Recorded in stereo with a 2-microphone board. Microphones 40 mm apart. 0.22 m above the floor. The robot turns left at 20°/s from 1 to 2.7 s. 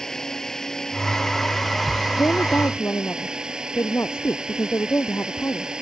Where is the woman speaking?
75° left (ahead or behind).